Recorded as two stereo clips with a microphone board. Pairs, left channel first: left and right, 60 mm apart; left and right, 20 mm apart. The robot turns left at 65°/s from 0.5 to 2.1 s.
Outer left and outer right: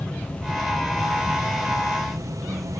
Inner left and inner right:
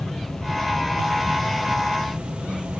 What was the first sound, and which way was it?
An insect, 20° left.